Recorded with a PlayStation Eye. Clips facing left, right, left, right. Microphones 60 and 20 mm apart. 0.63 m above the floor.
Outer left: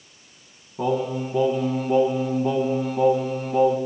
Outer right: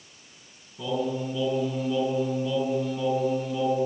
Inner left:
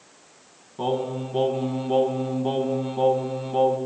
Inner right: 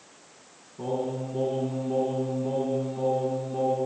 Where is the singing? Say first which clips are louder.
Outer left 4 dB, inner left 4 dB; 55° left (ahead or behind), 5 m.